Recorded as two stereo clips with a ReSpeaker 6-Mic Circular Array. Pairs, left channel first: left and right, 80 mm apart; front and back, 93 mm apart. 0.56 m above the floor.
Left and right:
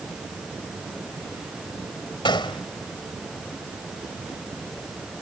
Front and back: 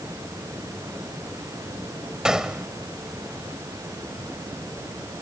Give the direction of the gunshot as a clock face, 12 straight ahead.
9 o'clock.